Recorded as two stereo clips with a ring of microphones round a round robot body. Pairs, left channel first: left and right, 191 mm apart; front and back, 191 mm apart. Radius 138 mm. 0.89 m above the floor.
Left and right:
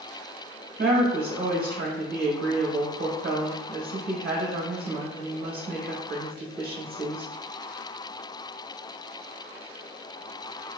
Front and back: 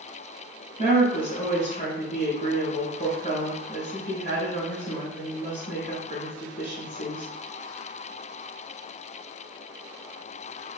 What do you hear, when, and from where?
0.8 s a woman speaking: 60° right, 1.5 m